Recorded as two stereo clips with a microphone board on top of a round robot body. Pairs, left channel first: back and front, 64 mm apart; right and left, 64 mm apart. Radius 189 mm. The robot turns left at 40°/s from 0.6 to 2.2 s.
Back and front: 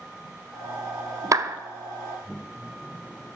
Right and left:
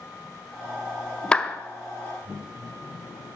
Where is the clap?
20° right, 1.1 m; by 1.6 s 30° right, 1.1 m.